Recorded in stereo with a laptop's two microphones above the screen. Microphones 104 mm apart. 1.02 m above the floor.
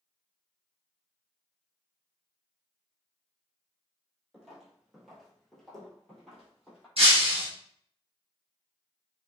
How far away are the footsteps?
About 1.3 m.